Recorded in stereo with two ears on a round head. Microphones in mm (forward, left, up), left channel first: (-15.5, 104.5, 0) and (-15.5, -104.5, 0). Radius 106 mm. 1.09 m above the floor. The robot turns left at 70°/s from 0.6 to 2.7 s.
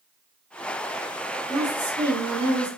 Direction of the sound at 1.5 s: Straight ahead.